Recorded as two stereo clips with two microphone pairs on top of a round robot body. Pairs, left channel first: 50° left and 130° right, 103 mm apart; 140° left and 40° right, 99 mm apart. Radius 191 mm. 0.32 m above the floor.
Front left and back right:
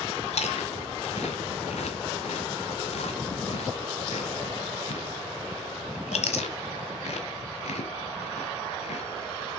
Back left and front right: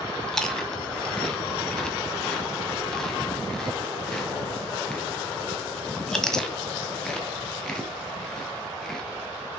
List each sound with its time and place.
0.3 s chewing: 55° left, 1.4 m